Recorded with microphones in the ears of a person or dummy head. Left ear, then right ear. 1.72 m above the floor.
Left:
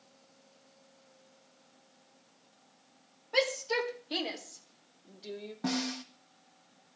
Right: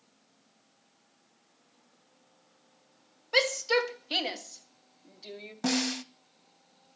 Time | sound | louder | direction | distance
3.3 | a shout | right 4 dB | 75° right (ahead or behind) | 2 m
5.6 | a snare drum | right 5 dB | 75° right (ahead or behind) | 1.0 m